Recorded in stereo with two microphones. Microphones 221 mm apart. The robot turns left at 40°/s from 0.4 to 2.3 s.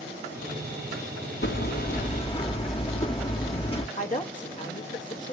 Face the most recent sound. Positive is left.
turn(degrees=35)  # may be behind; listen again after turning